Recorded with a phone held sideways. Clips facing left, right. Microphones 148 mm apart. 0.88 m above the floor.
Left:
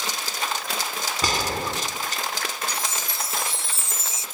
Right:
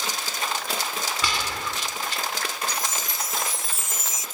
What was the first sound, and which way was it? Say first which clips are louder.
A gunshot: left 8 dB; 40° left (ahead or behind).